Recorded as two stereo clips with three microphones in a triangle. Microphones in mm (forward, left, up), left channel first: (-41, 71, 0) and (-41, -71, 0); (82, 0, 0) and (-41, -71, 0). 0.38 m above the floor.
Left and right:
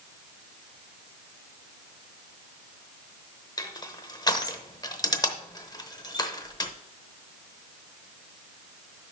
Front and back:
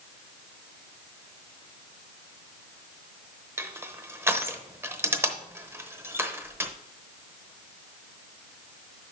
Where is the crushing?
145° left, 0.8 m.